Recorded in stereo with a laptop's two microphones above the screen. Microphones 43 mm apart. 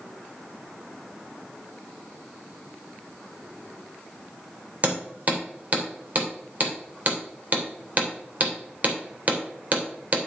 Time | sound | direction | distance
4.8 | hammering | 40° right (ahead or behind) | 2.5 m